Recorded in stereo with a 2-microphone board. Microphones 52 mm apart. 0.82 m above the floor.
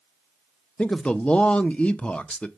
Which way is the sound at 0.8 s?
25° left (ahead or behind).